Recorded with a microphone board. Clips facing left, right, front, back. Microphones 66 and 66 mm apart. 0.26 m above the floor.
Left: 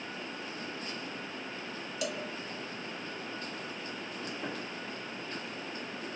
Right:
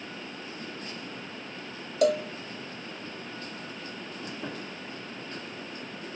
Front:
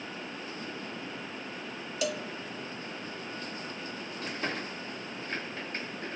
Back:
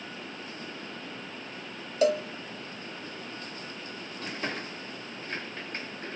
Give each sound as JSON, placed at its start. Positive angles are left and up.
{"t": 2.0, "sound": "a cowbell", "azimuth_deg": -125, "distance_m": 1.1}